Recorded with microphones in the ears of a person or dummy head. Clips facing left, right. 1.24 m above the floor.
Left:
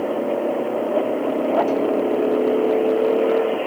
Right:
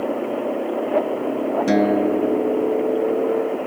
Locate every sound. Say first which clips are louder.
1.7 s a guitar: right 2 dB; 85° right